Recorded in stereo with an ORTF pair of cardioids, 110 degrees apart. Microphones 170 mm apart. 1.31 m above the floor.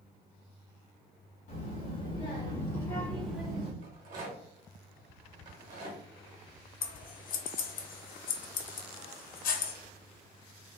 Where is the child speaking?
60° left, 1.3 m; by 3.7 s 45° right, 0.6 m.